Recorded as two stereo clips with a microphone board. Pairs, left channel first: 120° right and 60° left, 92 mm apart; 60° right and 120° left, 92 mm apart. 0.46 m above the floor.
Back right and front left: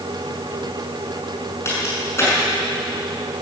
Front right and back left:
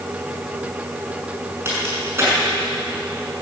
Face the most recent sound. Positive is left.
turn(degrees=180)